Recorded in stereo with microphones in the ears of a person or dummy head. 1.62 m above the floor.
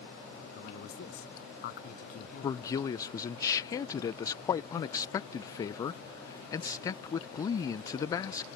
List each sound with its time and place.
0.6 s a man speaking: 60° left (ahead or behind)
2.4 s a man speaking: 25° left (ahead or behind)